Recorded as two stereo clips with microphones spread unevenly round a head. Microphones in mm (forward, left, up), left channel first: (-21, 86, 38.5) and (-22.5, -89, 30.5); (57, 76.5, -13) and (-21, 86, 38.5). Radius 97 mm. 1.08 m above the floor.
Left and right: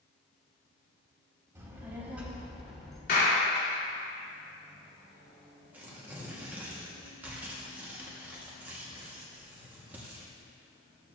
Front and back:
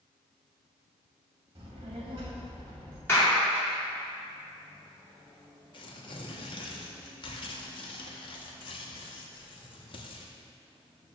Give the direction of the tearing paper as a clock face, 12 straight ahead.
12 o'clock.